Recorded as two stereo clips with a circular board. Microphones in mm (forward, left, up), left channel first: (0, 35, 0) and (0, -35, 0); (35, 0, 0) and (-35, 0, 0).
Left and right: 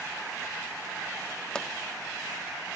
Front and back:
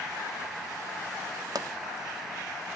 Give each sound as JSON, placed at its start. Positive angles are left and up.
{"t": 1.6, "sound": "a pop", "azimuth_deg": 170, "distance_m": 0.8}